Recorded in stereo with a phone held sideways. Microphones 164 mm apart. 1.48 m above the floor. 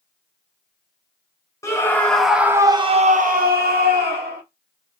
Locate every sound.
1.6 s a scream: 20° left (ahead or behind), 1.1 m; by 4.4 s 75° right (ahead or behind), 1.2 m